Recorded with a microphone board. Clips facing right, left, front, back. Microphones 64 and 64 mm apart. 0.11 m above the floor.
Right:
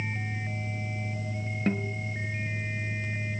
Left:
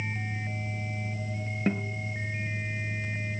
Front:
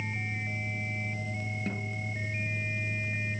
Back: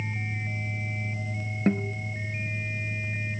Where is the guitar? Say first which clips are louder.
Even, back 14 dB; 175° left, 1.4 m.